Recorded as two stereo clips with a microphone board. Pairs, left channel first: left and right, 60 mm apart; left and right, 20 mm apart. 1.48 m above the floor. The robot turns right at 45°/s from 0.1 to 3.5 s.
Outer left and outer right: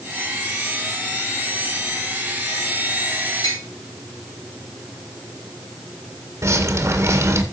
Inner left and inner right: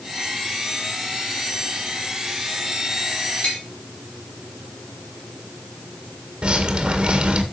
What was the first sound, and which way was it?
Tapping, 75° left (ahead or behind).